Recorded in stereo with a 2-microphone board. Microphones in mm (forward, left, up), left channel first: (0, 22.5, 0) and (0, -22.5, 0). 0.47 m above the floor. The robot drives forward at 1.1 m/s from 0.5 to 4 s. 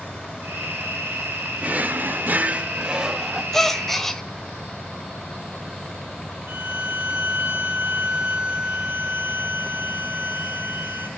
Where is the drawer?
30° right (ahead or behind), 0.8 m; by 3.4 s 15° right (ahead or behind), 1.6 m.